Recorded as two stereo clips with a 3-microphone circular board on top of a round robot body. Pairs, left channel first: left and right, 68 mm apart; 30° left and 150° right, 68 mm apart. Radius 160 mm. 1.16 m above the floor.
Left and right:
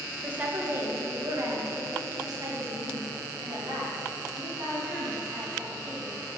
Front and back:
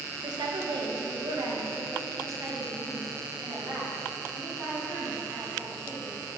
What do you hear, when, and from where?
0.2 s a woman speaking: 160° right, 1.8 m; by 6.2 s 85° right, 5.5 m